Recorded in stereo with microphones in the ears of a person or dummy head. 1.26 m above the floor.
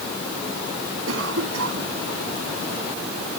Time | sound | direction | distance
1.1 | a cough | 85° right | ?